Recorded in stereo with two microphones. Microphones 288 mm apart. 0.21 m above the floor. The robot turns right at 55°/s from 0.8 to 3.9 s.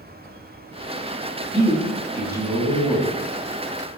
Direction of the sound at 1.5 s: 20° right (ahead or behind).